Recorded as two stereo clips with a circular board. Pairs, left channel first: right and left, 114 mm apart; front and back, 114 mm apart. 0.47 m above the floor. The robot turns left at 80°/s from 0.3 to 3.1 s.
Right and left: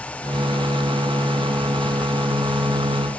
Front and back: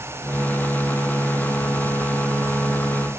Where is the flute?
I don't hear a flute.